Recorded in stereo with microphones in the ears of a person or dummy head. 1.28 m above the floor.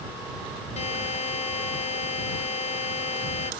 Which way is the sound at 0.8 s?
35° left (ahead or behind).